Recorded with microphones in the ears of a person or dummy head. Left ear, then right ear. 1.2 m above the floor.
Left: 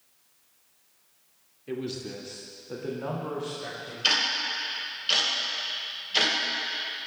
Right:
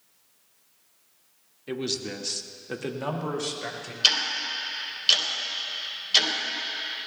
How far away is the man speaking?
About 1.9 m.